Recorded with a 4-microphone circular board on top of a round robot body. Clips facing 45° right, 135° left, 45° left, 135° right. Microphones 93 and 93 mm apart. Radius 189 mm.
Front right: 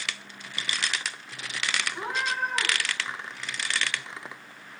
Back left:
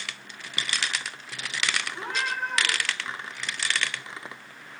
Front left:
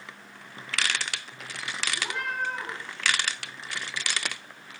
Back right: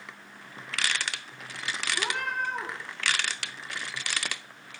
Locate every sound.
1.9 s a cat meowing: 115° right, 2.5 m